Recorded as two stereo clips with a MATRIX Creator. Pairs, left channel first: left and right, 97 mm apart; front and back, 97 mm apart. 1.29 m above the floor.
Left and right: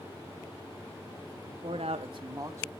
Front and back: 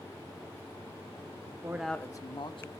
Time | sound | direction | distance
1.5 | a man speaking | 135° right | 0.7 m